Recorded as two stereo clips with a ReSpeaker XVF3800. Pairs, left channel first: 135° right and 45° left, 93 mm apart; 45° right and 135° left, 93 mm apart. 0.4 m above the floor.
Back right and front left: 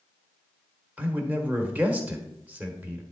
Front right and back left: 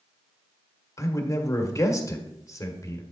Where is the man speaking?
15° right, 1.3 m.